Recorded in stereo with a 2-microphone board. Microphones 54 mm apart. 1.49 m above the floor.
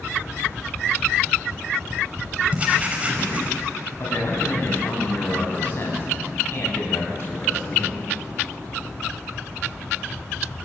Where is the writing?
25° right (ahead or behind), 4.5 m.